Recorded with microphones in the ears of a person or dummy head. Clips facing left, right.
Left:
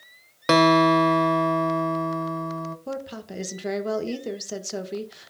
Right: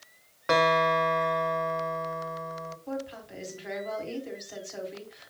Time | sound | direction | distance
0.5 | a guitar | 50° left (ahead or behind) | 0.8 m
2.9 | a woman speaking | 60° left (ahead or behind) | 1.5 m